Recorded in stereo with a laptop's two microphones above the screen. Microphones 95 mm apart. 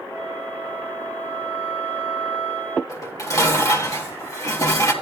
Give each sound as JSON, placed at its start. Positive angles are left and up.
{"t": 0.1, "sound": "a flute", "side_deg": 15, "distance_m": 1.9}
{"t": 2.9, "sound": "dishes clattering", "side_deg": 35, "distance_m": 1.0}